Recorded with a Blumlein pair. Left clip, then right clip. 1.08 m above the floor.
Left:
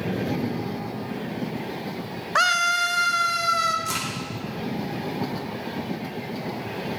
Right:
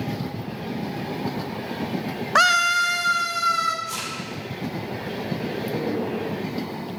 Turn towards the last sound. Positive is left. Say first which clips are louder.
# left 2 dB
turn(degrees=55)